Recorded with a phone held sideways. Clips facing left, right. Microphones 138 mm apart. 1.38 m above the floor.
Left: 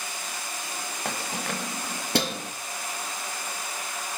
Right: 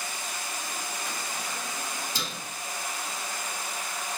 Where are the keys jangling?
65° left (ahead or behind), 1.4 m.